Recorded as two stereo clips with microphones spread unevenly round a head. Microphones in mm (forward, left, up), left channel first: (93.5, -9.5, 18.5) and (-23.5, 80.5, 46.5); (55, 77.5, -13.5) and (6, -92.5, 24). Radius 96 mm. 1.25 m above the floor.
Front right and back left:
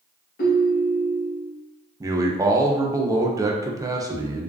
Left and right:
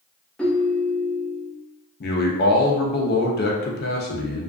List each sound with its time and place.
0.4 s a ringtone: 20° right, 0.7 m
2.0 s a man speaking: 70° left, 0.6 m